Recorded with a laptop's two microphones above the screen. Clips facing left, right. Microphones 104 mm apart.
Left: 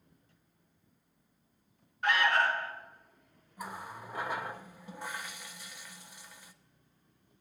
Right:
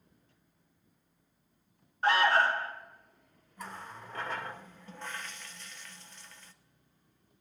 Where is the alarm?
30° right (ahead or behind), 1.0 m.